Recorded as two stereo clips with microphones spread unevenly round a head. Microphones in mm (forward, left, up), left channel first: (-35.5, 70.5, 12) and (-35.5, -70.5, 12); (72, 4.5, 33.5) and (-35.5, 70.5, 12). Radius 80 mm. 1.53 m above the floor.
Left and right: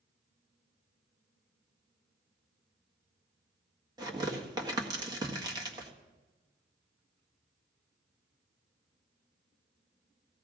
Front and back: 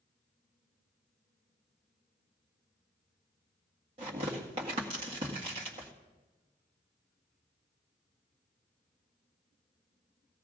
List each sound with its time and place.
4.0 s tearing paper: 150° right, 1.7 m